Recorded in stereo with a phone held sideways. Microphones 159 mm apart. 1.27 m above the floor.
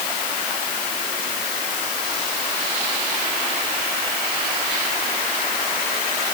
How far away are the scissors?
I don't hear scissors.